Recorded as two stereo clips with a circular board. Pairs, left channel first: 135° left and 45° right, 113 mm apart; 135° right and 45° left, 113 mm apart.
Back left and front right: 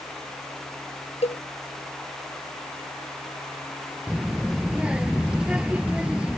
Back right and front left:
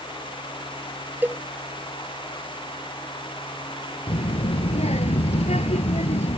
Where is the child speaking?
125° right.